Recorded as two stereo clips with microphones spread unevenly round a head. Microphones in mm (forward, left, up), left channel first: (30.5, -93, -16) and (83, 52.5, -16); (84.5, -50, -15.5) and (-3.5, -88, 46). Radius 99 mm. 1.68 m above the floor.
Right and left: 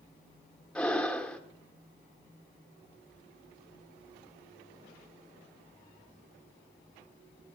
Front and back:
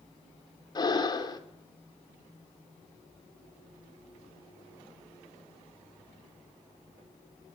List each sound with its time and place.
0.8 s breathing: 25° right, 2.5 m